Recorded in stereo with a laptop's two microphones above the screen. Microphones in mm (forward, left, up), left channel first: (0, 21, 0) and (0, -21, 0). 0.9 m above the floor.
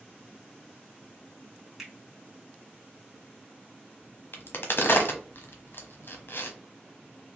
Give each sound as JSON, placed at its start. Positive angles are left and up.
{"t": 1.8, "sound": "a finger snap", "side_deg": -5, "distance_m": 2.5}
{"t": 4.3, "sound": "a crack", "side_deg": 60, "distance_m": 1.1}